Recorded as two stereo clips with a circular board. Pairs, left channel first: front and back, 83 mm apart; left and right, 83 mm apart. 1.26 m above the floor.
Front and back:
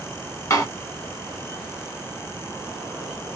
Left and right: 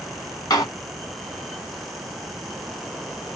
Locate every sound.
0.5 s a door slam: 50° left, 1.1 m